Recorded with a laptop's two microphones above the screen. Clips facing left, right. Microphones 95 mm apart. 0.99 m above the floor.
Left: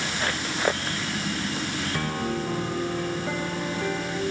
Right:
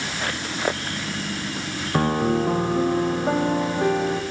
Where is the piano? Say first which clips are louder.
Right 10 dB; 40° right (ahead or behind), 1.0 m.